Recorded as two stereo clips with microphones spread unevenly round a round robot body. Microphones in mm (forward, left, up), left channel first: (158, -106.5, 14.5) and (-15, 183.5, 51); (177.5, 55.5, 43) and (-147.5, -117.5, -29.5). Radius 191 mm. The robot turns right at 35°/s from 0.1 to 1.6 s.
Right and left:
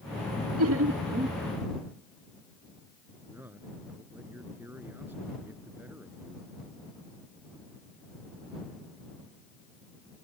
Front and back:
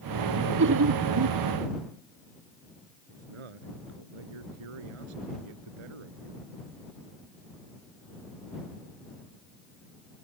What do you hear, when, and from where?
0.6 s laughter: 165° left; by 1.4 s 165° right
3.1 s a man speaking: 155° right